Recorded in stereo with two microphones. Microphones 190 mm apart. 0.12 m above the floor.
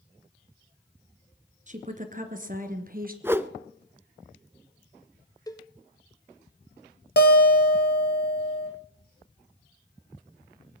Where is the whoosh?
10° right (ahead or behind), 0.6 m.